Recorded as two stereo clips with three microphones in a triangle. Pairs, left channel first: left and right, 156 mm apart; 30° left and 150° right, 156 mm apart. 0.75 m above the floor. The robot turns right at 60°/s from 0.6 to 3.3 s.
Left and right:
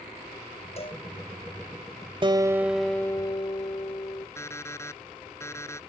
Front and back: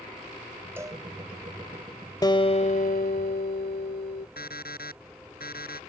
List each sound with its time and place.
0.8 s a cowbell: 135° left; by 1.0 s 155° left
2.2 s a guitar: 35° right; by 4.3 s 30° left
4.4 s an alarm clock: 20° left